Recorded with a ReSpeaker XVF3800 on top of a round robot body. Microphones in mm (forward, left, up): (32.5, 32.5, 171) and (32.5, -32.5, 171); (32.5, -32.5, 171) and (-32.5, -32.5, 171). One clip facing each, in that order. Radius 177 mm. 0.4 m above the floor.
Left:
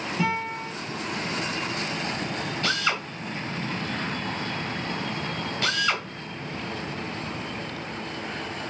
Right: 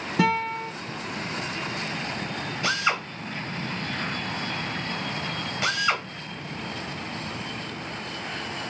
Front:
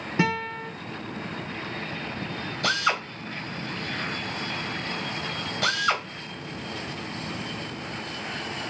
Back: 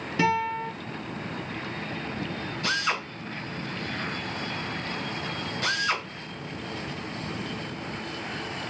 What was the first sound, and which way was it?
A guitar, 65° right.